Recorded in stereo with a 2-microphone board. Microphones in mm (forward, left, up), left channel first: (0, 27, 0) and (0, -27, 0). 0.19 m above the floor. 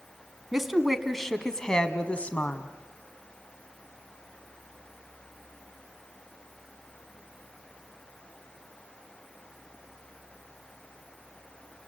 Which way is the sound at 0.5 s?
5° right (ahead or behind).